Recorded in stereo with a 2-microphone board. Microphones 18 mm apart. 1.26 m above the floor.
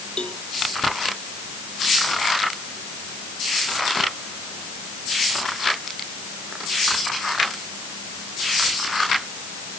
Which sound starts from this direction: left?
A cowbell, at 0.2 s.